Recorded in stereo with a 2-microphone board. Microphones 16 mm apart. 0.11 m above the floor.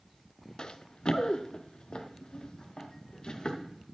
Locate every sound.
0.6 s running footsteps: 75° left (ahead or behind), 0.6 m; by 3.7 s 60° left (ahead or behind), 2.5 m